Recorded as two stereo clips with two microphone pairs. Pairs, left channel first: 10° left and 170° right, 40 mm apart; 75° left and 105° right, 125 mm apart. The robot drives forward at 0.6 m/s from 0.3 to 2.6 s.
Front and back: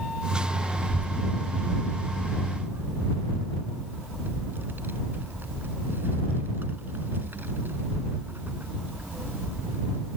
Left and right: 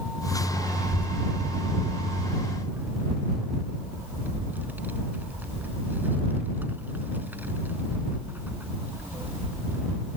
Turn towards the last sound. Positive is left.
turn(degrees=180)